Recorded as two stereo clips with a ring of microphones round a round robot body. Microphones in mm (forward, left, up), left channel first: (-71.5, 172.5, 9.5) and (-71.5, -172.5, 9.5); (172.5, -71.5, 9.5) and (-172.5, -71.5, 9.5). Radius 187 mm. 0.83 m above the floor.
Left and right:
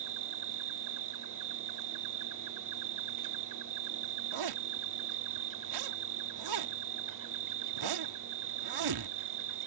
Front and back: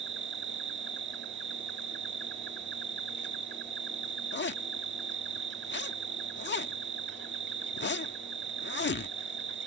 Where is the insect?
120° right.